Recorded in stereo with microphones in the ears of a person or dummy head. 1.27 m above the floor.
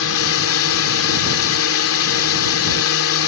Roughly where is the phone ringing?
No phone ringing in this recording.